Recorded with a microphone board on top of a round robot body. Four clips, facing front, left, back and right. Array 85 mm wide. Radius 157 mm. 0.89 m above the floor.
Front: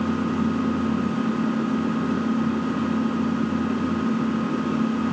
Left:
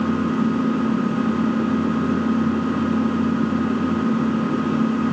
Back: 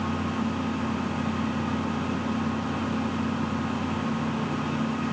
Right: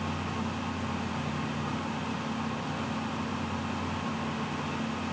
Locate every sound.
0.0 s an engine running: 70° left